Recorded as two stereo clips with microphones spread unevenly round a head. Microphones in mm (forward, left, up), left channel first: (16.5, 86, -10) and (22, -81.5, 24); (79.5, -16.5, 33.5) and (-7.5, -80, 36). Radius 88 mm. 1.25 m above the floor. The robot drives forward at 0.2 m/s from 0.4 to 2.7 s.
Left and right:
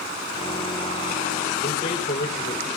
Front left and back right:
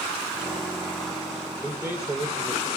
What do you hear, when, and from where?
1.6 s a man speaking: 145° left, 4 m